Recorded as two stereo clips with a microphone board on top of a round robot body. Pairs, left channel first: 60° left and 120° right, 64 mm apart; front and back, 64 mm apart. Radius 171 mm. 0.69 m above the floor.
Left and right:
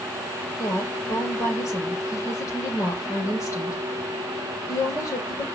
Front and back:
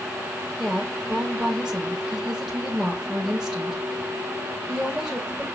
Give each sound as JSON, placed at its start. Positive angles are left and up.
{"t": 0.6, "sound": "a woman speaking", "azimuth_deg": 90, "distance_m": 4.0}